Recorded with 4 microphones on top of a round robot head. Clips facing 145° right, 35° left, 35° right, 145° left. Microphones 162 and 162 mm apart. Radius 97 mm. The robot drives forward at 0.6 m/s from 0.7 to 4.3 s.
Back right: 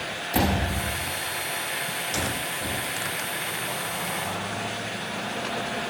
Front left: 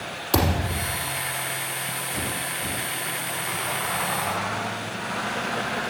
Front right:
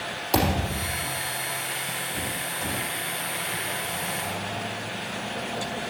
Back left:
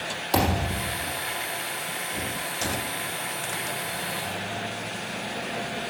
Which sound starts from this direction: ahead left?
A thud, at 0.3 s.